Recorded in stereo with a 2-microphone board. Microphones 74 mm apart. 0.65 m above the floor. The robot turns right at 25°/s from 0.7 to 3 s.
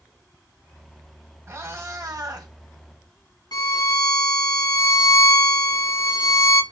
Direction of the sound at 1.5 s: 35° right (ahead or behind).